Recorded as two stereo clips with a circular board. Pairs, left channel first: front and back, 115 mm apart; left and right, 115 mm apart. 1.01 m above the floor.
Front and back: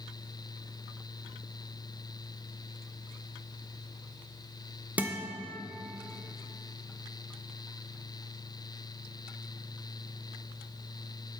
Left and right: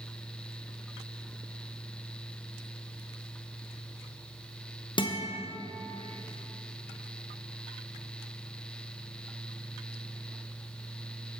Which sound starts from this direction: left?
A guitar, at 5.0 s.